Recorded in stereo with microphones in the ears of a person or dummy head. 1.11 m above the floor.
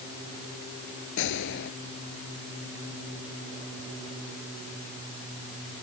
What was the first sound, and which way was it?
A gunshot, 65° left (ahead or behind).